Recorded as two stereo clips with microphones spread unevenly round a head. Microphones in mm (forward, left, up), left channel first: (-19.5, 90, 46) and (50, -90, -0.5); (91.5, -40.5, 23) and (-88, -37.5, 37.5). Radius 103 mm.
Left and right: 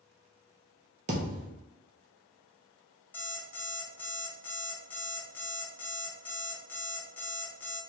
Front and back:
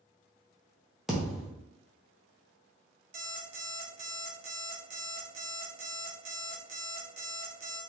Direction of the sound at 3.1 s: 170° left.